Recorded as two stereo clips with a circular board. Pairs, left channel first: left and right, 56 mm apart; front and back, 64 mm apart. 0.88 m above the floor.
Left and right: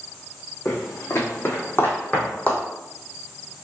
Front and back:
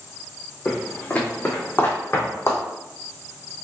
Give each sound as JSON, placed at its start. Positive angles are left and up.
{"t": 0.7, "sound": "footsteps", "azimuth_deg": 75, "distance_m": 1.8}